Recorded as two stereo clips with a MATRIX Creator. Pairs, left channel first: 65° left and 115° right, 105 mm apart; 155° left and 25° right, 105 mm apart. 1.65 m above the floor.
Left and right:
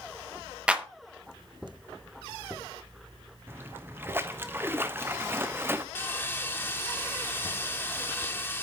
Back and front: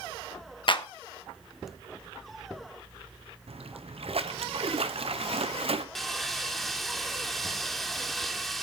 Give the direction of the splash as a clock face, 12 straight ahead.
1 o'clock.